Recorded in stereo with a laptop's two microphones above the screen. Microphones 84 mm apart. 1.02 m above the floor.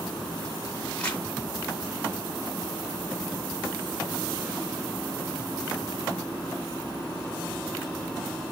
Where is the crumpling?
15° left (ahead or behind), 1.0 m.